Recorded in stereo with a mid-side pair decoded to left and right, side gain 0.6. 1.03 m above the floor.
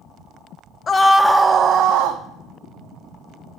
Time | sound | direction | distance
0.9 | a scream | 30° left | 0.7 m